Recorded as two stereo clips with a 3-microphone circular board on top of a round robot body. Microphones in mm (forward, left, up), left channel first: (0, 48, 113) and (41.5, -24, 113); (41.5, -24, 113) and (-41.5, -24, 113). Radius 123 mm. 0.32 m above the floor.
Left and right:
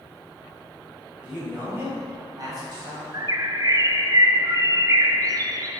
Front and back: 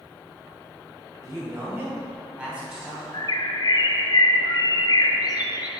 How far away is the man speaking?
About 1.9 m.